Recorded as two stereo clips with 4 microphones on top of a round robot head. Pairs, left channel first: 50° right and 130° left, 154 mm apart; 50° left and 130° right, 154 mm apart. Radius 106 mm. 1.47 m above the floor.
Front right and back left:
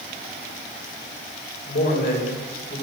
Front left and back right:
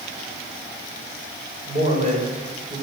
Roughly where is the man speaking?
Right.